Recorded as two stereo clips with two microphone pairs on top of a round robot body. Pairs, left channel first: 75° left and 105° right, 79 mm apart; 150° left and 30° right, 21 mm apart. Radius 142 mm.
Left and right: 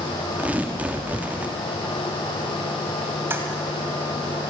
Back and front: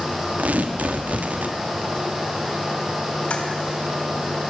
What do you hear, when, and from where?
0.4 s tearing paper: 30° right, 1.4 m
3.3 s a toilet flushing: 165° right, 2 m